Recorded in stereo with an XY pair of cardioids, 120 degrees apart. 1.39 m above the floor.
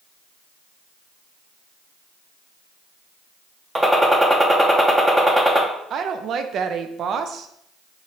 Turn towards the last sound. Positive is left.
turn(degrees=-55)